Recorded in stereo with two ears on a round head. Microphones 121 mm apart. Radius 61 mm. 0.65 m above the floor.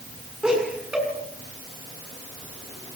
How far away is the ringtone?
I don't hear a ringtone.